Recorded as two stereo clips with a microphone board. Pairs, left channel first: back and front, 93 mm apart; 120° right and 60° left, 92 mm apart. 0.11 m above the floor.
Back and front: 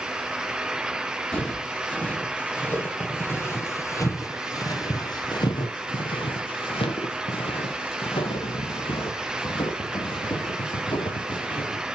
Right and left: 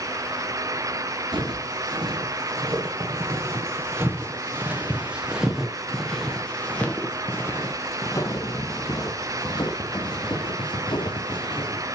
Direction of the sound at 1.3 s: 100° left.